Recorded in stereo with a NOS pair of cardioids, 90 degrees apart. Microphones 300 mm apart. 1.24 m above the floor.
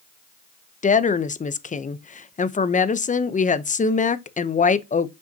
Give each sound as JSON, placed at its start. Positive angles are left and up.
{"t": 0.8, "sound": "a woman speaking", "azimuth_deg": 25, "distance_m": 0.8}